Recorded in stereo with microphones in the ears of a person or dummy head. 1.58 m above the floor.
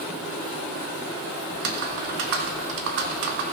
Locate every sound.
1.5 s typing on a keyboard: 60° right (ahead or behind), 1.1 m